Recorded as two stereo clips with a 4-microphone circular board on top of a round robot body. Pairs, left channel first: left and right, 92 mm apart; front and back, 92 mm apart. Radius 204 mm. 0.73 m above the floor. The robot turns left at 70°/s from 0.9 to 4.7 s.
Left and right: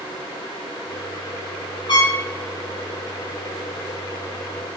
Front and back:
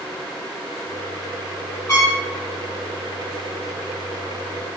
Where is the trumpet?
55° left, 1.7 m; by 2.2 s 35° left, 1.7 m.